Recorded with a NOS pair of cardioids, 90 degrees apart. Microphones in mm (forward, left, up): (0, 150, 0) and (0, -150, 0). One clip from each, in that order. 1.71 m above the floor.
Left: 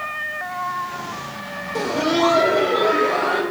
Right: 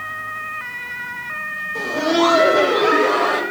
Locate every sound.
1.8 s laughter: 30° left, 0.5 m; by 3.4 s 40° right, 2.0 m